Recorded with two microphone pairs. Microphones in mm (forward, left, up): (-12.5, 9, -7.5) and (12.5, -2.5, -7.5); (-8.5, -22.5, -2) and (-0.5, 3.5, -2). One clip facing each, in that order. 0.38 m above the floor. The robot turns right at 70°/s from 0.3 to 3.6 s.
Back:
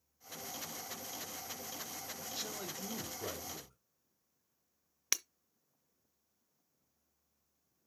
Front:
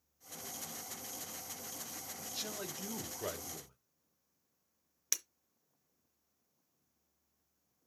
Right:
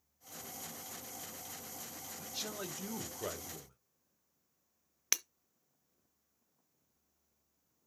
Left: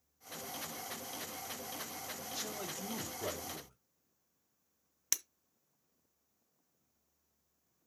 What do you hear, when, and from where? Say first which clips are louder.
2.2 s a man speaking: front 2 dB, right 2 dB; 130° right, 1.4 m; by 3.8 s 30° right, 1.4 m
5.1 s breaking glass: back 2 dB, right 3 dB; 155° right, 0.7 m